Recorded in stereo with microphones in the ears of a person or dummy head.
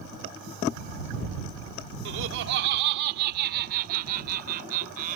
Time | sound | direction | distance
2.0 | laughter | 65° right (ahead or behind) | ?